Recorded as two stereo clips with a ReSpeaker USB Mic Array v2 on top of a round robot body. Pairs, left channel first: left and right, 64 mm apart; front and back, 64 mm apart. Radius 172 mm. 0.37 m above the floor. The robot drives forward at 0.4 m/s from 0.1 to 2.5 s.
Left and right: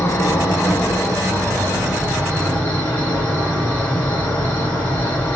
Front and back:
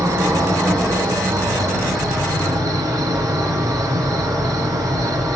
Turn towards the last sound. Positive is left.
turn(degrees=150)